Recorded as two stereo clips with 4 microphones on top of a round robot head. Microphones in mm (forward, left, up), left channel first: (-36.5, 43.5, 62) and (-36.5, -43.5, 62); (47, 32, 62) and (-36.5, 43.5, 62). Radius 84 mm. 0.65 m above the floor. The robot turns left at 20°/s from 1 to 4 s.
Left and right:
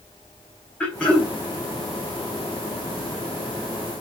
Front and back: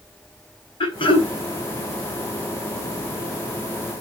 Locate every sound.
0.8 s throat clearing: 10° left, 3 m; by 1.3 s 5° left, 3 m